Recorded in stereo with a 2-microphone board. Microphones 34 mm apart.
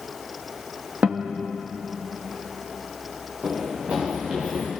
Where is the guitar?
45° right (ahead or behind), 2 m.